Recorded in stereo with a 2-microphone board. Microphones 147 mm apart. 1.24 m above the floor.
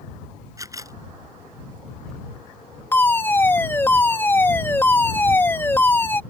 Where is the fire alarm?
15° left (ahead or behind).